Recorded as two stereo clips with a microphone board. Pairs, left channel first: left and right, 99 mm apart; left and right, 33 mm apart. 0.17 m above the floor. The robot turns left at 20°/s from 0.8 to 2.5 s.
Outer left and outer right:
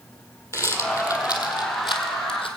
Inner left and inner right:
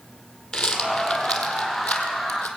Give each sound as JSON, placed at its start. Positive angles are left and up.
{"t": 0.5, "sound": "a rattle", "side_deg": 30, "distance_m": 1.7}